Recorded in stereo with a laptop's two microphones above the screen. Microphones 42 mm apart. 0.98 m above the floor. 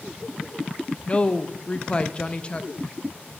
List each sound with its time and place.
1.1 s a woman speaking: 25° left (ahead or behind), 0.7 m